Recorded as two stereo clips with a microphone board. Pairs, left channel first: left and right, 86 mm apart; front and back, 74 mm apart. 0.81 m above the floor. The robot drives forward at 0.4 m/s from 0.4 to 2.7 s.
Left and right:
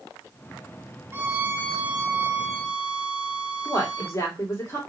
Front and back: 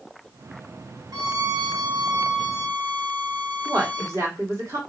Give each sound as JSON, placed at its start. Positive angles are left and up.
{"t": 1.1, "sound": "a violin", "azimuth_deg": -150, "distance_m": 0.5}
{"t": 3.6, "sound": "a woman speaking", "azimuth_deg": 140, "distance_m": 2.5}